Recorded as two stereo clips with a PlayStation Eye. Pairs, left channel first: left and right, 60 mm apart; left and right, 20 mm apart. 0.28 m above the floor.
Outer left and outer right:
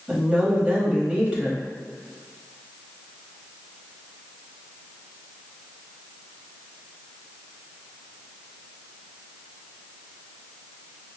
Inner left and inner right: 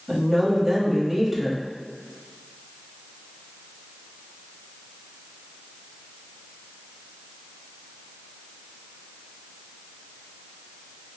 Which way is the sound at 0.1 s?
20° right (ahead or behind).